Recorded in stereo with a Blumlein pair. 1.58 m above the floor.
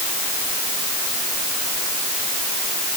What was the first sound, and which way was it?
Only background noise.